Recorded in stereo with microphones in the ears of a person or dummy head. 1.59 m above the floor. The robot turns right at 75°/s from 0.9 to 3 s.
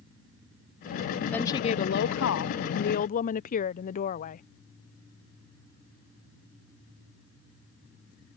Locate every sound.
1.3 s a woman speaking: 10° left; by 4.4 s 135° left